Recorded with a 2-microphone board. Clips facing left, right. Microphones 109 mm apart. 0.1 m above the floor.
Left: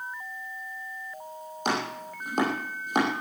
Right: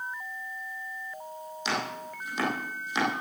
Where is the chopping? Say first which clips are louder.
Left 3 dB; 50° left (ahead or behind), 5.5 m.